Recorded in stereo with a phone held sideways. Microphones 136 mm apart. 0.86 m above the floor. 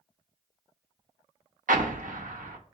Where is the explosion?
80° right, 0.5 m.